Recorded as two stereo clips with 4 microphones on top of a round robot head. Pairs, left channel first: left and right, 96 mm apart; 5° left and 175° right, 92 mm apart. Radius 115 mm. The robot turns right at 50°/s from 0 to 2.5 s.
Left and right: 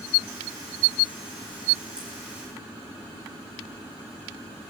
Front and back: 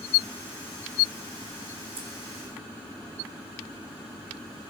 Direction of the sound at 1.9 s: 175° right.